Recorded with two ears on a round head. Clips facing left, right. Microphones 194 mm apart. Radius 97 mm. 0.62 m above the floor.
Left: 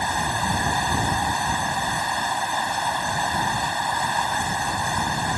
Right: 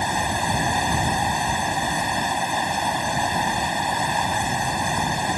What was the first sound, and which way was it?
Running water, 20° right (ahead or behind).